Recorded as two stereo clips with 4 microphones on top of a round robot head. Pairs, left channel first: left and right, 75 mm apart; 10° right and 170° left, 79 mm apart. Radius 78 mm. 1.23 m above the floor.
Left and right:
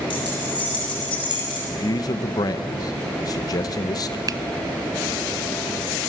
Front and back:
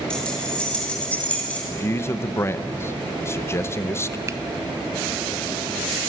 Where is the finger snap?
130° right, 0.8 m.